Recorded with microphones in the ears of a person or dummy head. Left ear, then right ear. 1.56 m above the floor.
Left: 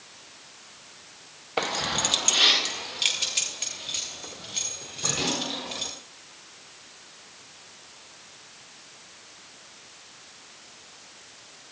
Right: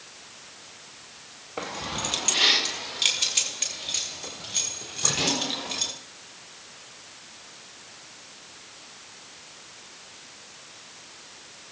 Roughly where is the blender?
No blender in this recording.